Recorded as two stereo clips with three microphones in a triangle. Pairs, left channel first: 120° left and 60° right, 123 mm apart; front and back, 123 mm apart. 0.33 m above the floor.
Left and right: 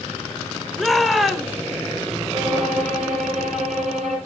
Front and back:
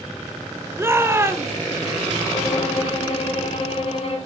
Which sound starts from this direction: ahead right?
A violin, at 2.3 s.